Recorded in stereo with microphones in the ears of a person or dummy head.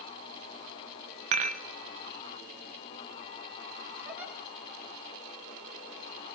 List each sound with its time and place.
1.3 s dishes clattering: 40° right (ahead or behind), 0.7 m
4.0 s a giggle: 10° right (ahead or behind), 2.5 m